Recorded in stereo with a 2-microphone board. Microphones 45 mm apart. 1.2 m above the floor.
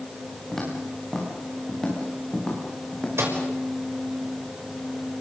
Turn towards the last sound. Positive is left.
turn(degrees=-80)